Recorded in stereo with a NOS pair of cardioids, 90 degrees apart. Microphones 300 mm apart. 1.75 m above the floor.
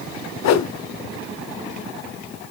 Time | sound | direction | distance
0.4 | a whoosh | 60° left | 1.0 m